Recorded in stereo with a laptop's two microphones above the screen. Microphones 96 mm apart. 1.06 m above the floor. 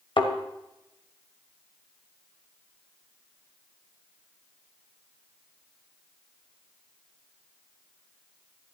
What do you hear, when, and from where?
0.2 s a thud: 60° left (ahead or behind), 1.5 m